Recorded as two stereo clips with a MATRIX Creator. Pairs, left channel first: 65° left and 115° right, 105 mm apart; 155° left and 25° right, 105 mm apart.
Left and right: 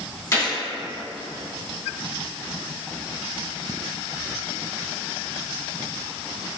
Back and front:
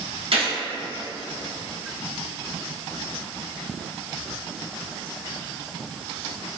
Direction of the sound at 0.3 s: 5° left.